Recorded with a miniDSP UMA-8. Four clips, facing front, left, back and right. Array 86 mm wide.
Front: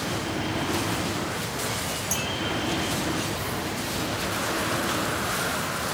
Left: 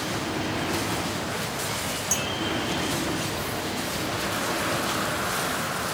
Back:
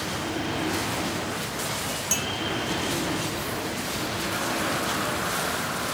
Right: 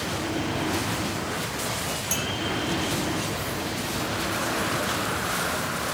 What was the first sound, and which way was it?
A clink, 160° right.